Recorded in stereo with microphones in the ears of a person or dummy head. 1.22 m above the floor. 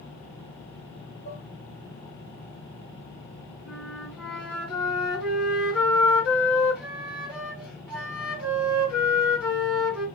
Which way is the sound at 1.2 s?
40° left (ahead or behind).